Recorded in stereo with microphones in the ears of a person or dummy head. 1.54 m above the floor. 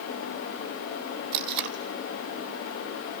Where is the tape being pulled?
55° right (ahead or behind), 1.4 m.